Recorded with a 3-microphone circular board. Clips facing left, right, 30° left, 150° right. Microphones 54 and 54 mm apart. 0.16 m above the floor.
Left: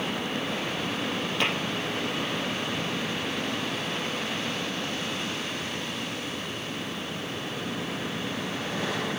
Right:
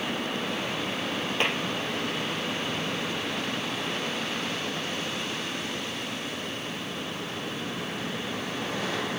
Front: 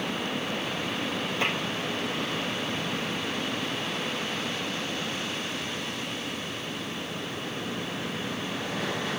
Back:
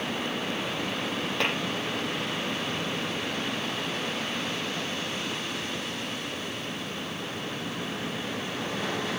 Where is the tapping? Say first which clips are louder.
Even, even; 145° right, 6.5 m.